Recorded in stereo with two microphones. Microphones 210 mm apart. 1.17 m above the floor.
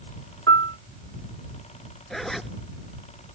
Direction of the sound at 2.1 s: Centre (ahead or behind).